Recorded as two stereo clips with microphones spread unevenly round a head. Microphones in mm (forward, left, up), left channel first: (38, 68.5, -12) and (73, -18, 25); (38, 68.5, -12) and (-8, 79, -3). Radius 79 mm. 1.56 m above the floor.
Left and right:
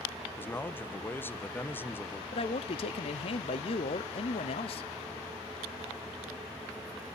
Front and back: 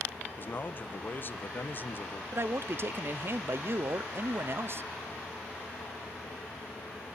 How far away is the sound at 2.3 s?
About 0.6 m.